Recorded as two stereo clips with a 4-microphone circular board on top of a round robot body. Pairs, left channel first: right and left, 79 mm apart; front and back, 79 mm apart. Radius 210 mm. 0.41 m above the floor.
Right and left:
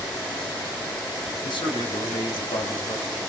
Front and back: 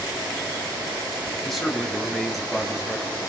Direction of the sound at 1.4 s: 90° right.